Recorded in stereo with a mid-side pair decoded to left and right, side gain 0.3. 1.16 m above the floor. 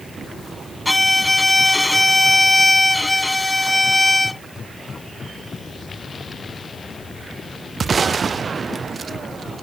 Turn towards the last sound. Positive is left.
turn(degrees=20)